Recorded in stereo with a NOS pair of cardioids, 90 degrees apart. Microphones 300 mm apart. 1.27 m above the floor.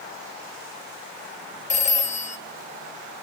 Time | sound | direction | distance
1.7 | a phone ringing | 25° left | 0.5 m